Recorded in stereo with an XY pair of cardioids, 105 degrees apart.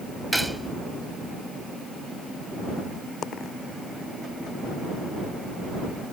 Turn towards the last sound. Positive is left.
turn(degrees=60)